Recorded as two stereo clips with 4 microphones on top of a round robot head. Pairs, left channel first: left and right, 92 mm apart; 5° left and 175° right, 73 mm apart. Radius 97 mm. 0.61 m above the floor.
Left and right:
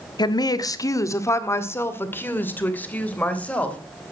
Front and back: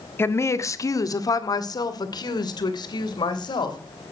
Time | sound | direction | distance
0.2 | a woman speaking | 60° left | 1.3 m